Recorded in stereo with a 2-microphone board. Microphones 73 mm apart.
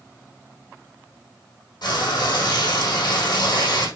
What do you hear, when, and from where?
1.8 s frying: 75° left (ahead or behind), 4 m